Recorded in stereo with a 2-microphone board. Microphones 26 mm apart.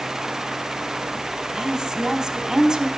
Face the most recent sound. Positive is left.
turn(degrees=-25)  # may be behind; listen again after turning